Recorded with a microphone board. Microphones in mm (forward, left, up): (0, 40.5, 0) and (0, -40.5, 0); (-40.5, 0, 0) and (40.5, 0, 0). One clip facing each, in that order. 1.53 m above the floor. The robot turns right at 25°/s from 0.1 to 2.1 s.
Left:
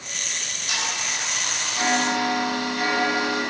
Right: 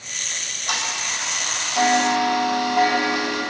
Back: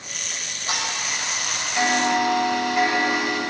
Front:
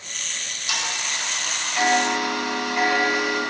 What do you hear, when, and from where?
0.3 s ticking: 135° right, 8 m; by 3.4 s 90° right, 8 m